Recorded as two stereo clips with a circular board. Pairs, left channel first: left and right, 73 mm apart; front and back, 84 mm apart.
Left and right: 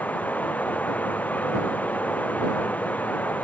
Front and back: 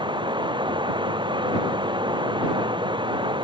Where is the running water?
160° left.